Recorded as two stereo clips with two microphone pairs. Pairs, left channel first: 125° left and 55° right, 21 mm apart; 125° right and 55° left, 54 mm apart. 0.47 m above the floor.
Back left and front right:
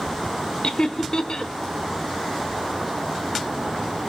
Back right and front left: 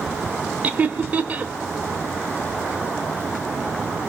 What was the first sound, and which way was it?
Laughter, 95° left.